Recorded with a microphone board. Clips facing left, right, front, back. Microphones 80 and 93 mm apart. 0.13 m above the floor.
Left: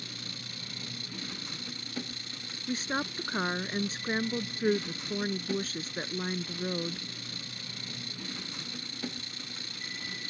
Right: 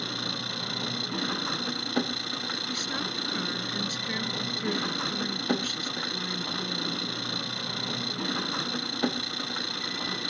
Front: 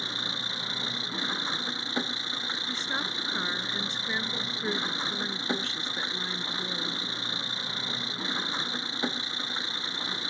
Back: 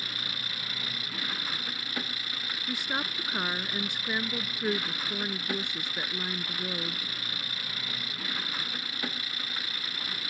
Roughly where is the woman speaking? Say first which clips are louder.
Left 5 dB, back 2 dB; left.